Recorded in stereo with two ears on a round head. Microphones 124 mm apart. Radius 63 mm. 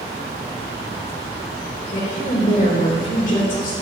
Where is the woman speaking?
60° left (ahead or behind), 2.5 m.